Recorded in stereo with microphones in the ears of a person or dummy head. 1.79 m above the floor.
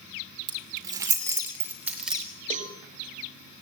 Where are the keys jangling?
20° right (ahead or behind), 3.5 m; by 2.2 s 5° right (ahead or behind), 4 m.